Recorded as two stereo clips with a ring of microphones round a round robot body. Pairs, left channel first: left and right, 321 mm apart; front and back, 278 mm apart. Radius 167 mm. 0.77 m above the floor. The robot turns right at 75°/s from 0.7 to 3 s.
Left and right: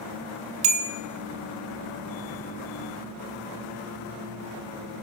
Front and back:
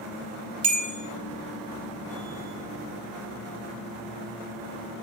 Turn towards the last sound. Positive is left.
turn(degrees=40)